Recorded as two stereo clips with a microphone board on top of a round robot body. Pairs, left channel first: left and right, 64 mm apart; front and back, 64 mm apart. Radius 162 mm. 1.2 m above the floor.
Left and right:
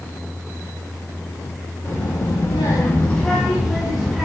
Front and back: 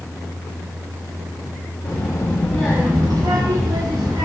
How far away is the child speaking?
About 1.2 m.